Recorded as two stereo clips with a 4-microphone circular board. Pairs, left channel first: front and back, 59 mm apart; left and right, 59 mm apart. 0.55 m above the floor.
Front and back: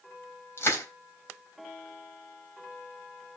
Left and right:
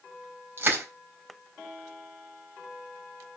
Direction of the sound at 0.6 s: 40° right.